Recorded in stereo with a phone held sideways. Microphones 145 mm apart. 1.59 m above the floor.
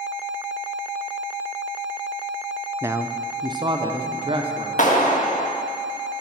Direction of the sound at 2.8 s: 15° right (ahead or behind).